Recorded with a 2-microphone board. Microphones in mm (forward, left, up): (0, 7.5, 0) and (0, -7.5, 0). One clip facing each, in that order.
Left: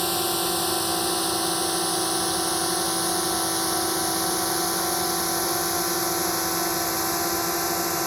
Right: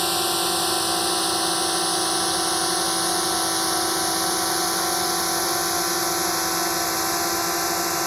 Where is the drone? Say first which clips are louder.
Right 2 dB; 10° right (ahead or behind).